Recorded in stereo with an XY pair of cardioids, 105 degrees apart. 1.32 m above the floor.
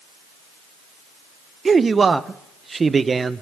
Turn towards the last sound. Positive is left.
turn(degrees=-30)